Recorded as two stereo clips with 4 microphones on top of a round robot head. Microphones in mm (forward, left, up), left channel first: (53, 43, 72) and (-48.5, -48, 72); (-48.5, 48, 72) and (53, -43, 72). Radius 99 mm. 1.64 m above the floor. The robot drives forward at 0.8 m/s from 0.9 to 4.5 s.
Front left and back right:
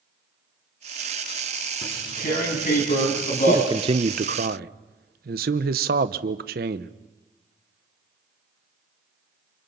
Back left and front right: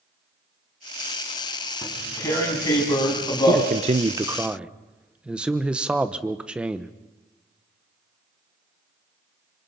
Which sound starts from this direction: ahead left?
Tearing paper, at 1.8 s.